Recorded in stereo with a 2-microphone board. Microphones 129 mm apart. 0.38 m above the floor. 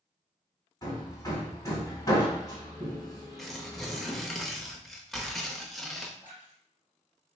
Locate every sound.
0.8 s hammering: 35° left (ahead or behind), 1.8 m
3.4 s tearing paper: centre (ahead or behind), 0.8 m
6.2 s a splash: 85° left, 2.5 m